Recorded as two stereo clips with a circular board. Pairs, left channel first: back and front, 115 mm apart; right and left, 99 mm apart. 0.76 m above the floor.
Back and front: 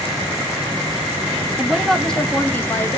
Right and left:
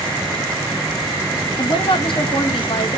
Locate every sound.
1.6 s a woman speaking: 80° right, 1.1 m; by 3.0 s 115° right, 1.7 m